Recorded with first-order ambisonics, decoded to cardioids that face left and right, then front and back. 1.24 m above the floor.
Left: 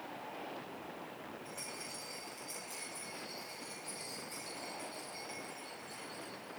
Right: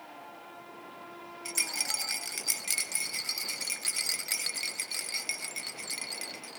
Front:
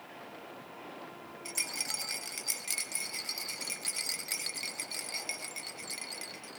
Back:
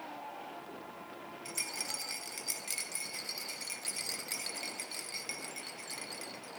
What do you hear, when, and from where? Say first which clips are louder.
1.4 s a rattle: right 17 dB, front 3 dB; 75° right, 0.7 m